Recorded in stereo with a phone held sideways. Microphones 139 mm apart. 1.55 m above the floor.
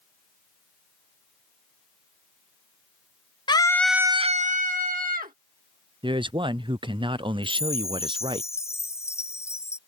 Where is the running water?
No running water in this recording.